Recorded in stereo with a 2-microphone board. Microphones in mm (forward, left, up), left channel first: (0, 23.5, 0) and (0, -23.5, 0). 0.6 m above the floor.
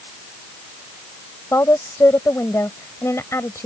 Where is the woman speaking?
75° left (ahead or behind).